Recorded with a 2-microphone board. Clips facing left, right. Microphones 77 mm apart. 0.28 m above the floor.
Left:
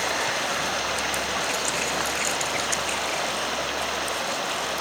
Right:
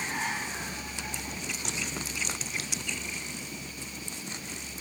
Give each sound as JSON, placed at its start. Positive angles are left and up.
{"t": 0.0, "sound": "running water", "side_deg": 75}